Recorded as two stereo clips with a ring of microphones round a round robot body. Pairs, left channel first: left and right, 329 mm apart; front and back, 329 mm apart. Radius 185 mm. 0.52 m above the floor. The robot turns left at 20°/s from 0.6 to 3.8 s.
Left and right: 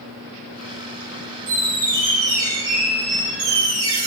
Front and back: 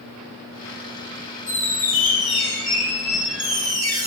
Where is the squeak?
55° right, 1.2 m; by 4.1 s 100° right, 1.2 m.